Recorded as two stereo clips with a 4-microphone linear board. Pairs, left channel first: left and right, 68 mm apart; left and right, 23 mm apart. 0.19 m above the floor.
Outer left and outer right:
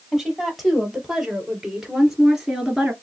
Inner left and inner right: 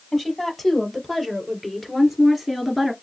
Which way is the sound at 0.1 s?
5° left (ahead or behind).